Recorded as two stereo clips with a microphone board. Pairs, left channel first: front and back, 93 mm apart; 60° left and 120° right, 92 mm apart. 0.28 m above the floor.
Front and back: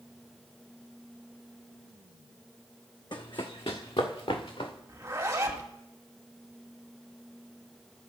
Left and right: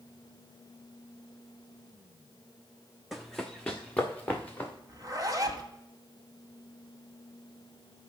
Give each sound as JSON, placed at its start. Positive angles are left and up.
{"t": 3.1, "sound": "running footsteps", "azimuth_deg": -30, "distance_m": 1.0}
{"t": 4.9, "sound": "a zipper", "azimuth_deg": -140, "distance_m": 1.1}